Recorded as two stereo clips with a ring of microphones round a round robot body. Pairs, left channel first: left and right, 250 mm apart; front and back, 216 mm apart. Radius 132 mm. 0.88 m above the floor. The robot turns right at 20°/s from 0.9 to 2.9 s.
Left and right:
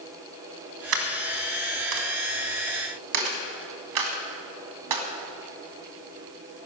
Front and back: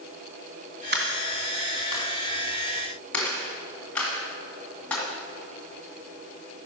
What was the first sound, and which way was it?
A dropped coin, 125° right.